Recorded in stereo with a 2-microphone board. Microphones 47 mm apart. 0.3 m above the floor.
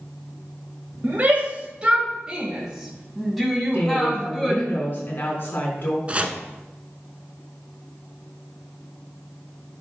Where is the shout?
35° right (ahead or behind), 1.2 m; by 4.7 s 10° left (ahead or behind), 2.5 m.